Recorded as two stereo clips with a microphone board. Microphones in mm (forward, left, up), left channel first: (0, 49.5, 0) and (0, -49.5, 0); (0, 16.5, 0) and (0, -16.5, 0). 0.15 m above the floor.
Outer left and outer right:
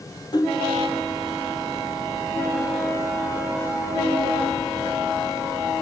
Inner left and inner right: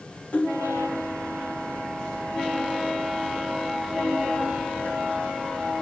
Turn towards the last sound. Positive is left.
turn(degrees=45)  # may be behind; listen again after turning